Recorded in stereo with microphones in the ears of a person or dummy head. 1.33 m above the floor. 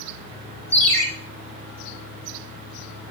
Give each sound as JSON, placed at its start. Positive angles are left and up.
{"t": 0.7, "sound": "a ringtone", "side_deg": 15, "distance_m": 2.5}